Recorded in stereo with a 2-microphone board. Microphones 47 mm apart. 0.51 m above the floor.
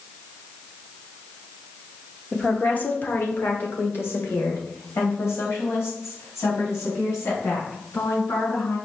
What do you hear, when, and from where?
2.3 s a woman speaking: 20° left (ahead or behind), 1.1 m; by 8.8 s 65° left (ahead or behind), 6 m